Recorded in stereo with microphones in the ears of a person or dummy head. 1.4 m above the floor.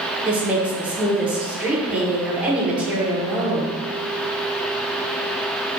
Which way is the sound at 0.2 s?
15° right (ahead or behind).